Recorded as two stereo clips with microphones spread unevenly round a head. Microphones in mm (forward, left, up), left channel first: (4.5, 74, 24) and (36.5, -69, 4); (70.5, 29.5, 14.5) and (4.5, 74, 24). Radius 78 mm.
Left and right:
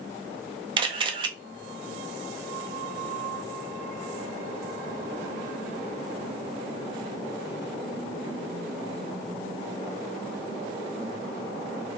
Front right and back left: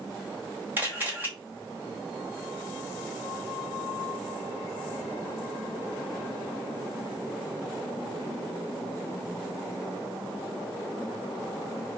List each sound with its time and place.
0.8 s a camera shutter: 140° right, 0.6 m